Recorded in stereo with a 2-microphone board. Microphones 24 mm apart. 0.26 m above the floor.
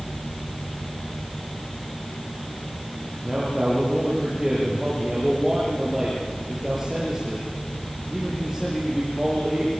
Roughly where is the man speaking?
Centre.